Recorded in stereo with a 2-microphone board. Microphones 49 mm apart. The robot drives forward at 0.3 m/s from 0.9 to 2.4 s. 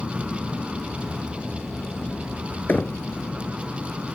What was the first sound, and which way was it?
An aircraft, 55° left (ahead or behind).